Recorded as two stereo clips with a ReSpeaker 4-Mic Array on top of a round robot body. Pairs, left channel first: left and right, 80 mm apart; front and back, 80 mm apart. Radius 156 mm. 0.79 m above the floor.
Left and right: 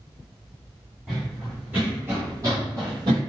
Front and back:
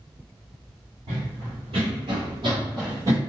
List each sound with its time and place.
1.1 s running footsteps: 175° right, 2.0 m; by 3.2 s 115° right, 1.3 m